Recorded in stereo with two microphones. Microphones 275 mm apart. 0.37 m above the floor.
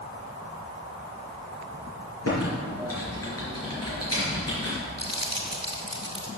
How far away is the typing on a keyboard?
About 4.5 m.